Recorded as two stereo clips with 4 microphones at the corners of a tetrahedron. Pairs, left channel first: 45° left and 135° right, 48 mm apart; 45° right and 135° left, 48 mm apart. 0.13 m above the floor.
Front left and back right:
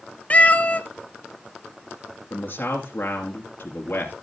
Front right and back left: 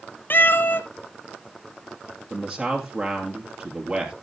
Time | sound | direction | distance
0.3 | a cat meowing | 10° right | 0.7 m
2.3 | a man speaking | 80° left | 2.5 m